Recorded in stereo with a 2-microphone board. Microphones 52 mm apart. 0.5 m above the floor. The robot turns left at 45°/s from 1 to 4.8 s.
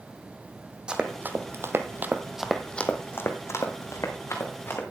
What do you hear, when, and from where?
0.9 s running footsteps: 15° right (ahead or behind), 1.1 m; by 4.8 s 35° left (ahead or behind), 2.5 m